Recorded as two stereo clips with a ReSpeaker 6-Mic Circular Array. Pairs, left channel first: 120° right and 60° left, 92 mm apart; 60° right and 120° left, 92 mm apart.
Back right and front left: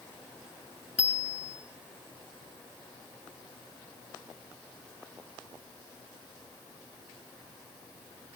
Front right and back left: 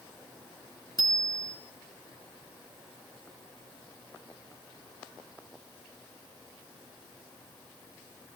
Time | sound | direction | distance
1.0 | a bicycle bell | 15° right | 2.5 m